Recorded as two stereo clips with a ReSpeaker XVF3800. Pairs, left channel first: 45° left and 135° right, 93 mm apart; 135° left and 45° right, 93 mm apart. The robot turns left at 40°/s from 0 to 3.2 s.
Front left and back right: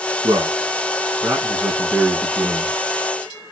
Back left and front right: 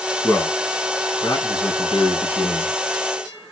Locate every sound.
0.2 s a man speaking: 150° right, 3 m; by 2.8 s 105° left, 3 m